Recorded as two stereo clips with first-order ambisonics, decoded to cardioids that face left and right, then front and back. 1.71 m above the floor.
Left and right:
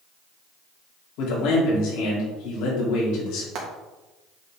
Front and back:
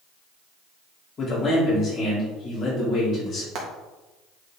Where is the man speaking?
65° left, 3.5 m.